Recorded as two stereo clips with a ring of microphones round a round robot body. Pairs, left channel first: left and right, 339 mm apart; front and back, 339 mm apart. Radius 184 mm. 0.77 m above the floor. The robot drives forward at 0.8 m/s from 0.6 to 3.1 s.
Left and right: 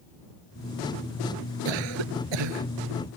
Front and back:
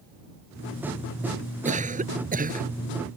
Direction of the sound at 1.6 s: 110° right.